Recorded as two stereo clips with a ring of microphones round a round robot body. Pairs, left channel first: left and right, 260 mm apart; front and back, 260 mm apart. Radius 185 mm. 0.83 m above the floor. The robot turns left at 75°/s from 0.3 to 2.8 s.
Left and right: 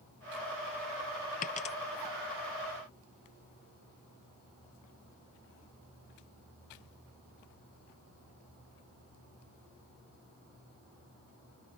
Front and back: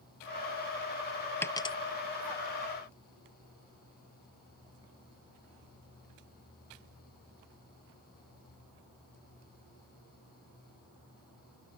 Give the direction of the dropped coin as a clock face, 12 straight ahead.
10 o'clock.